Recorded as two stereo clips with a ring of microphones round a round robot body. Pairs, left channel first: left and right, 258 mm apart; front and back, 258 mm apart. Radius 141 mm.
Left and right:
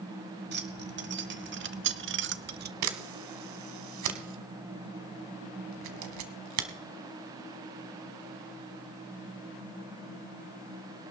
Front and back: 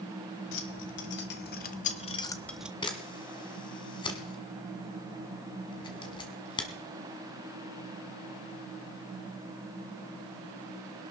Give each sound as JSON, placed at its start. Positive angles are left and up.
{"t": 0.5, "sound": "keys jangling", "azimuth_deg": -40, "distance_m": 1.5}
{"t": 2.8, "sound": "a camera shutter", "azimuth_deg": -75, "distance_m": 1.3}